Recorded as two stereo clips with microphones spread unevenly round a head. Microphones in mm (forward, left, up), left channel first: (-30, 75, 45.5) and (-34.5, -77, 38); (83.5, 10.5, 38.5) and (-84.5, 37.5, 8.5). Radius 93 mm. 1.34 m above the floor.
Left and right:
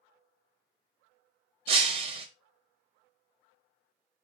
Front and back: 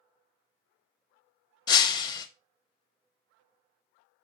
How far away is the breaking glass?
About 0.7 m.